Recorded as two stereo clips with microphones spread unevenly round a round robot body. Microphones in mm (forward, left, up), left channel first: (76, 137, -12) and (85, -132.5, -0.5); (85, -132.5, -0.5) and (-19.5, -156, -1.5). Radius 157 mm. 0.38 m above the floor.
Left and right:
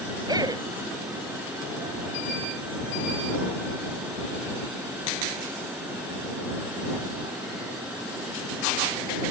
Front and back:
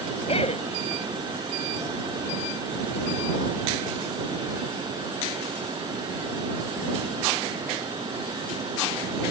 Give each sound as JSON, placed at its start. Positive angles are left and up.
{"t": 0.3, "sound": "a man speaking", "azimuth_deg": -10}